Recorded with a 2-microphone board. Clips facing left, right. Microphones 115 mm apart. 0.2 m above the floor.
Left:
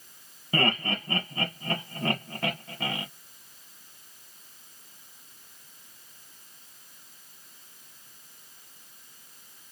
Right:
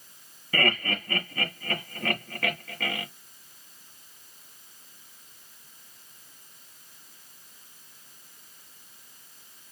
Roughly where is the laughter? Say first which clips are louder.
Left 1 dB; left.